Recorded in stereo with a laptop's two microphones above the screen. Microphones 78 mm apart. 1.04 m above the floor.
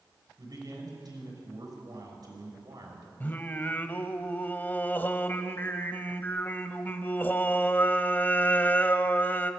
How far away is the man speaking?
About 6 m.